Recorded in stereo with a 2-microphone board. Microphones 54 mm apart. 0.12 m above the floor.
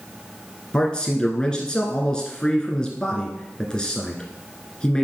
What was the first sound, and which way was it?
A man speaking, 15° left (ahead or behind).